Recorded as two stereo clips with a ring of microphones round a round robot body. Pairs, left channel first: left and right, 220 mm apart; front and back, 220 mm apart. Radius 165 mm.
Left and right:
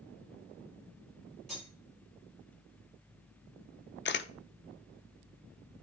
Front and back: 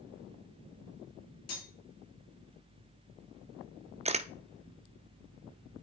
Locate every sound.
1.5 s cutlery clinking: straight ahead, 4.5 m
4.0 s a camera shutter: 120° left, 0.7 m